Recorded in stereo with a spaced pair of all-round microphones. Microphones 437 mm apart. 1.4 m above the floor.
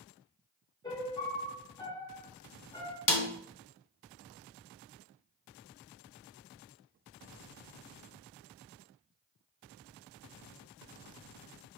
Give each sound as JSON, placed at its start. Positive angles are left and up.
{"t": 0.8, "sound": "a piano", "side_deg": 10, "distance_m": 1.1}
{"t": 3.1, "sound": "a snare drum", "side_deg": 45, "distance_m": 0.7}